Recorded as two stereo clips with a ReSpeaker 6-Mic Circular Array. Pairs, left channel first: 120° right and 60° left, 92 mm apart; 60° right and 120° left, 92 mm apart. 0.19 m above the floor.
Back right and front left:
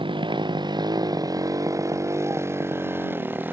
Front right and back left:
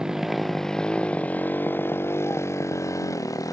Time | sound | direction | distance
0.0 | a motorcycle | 35° left | ?